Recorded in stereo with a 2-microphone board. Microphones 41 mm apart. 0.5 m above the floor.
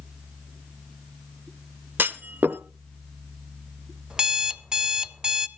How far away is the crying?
No crying in this recording.